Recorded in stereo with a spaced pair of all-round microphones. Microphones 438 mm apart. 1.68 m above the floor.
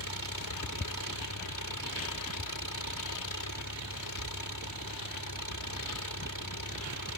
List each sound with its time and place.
0.0 s an engine running: 45° left (ahead or behind)